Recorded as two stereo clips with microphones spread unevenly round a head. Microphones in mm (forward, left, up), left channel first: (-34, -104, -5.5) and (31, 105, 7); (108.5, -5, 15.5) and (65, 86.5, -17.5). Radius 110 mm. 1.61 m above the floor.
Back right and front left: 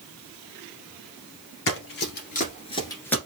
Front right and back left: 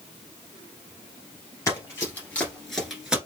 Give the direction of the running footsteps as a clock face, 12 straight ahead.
3 o'clock.